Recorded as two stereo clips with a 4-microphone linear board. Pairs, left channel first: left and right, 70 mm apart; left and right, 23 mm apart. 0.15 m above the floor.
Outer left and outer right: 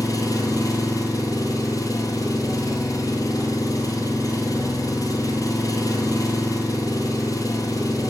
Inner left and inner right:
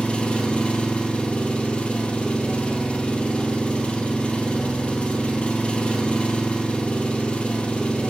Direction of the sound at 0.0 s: 65° left (ahead or behind).